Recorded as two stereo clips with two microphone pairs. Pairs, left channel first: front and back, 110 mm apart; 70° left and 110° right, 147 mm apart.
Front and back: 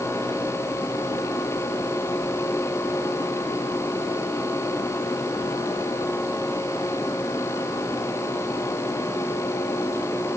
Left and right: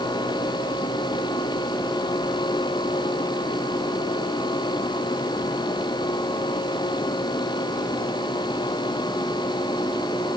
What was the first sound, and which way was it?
Only background noise.